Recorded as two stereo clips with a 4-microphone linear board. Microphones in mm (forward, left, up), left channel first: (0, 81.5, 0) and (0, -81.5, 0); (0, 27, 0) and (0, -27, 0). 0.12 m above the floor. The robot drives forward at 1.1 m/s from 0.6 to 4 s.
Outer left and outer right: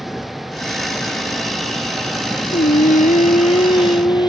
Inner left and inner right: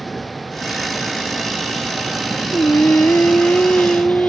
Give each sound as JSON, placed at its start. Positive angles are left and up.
{"t": 0.0, "sound": "a vehicle", "side_deg": 0}
{"t": 2.5, "sound": "singing", "side_deg": 50}